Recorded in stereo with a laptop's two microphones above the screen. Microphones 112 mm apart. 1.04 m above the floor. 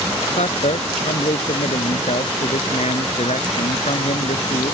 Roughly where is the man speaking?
Left.